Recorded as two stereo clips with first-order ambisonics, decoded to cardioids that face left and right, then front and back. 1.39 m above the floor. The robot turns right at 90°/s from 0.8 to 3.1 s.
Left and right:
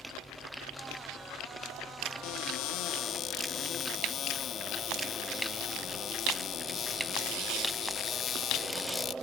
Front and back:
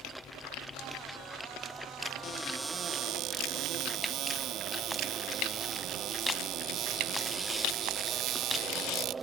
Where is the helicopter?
5° left; by 9.2 s 150° right.